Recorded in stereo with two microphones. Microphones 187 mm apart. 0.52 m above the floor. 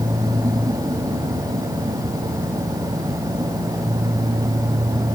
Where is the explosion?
No explosion in this recording.